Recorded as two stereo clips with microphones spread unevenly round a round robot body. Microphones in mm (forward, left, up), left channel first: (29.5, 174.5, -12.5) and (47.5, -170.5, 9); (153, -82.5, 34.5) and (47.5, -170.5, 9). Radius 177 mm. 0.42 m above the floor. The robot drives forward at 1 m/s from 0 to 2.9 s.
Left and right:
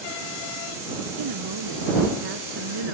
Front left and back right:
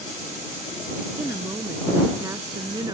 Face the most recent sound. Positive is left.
turn(degrees=-80)